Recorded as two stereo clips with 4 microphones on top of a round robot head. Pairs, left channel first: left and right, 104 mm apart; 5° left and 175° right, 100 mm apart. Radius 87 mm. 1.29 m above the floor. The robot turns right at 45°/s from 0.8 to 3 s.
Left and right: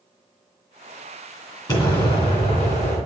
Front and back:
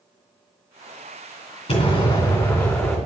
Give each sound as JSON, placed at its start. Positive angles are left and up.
{"t": 1.7, "sound": "an explosion", "azimuth_deg": 40, "distance_m": 2.5}